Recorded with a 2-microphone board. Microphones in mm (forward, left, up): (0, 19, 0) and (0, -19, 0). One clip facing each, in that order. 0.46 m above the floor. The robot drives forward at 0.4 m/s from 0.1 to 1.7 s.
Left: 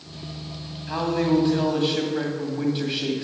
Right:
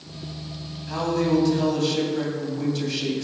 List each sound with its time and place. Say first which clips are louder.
0.9 s a man speaking: even; 25° left (ahead or behind), 2.5 m